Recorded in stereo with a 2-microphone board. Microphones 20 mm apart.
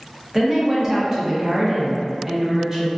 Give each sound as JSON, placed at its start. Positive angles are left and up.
{"t": 0.3, "sound": "a woman speaking", "side_deg": -20, "distance_m": 0.6}